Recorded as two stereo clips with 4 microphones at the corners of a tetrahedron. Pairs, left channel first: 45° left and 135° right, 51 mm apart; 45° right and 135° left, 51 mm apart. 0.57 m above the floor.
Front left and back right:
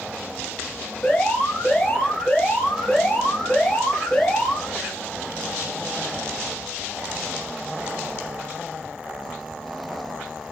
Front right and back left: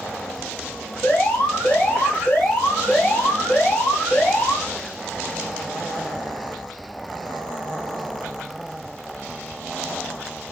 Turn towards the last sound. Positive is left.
turn(degrees=-5)